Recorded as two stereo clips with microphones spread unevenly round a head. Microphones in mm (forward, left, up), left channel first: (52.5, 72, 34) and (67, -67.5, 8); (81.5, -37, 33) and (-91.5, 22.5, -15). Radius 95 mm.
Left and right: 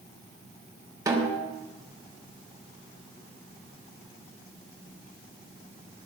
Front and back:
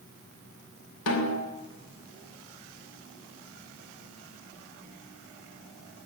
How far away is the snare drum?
About 3 m.